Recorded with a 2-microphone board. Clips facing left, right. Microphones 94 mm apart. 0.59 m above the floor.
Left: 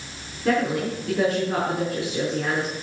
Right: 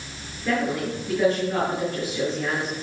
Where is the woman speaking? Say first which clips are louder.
Left 2 dB; 70° left (ahead or behind), 7 m.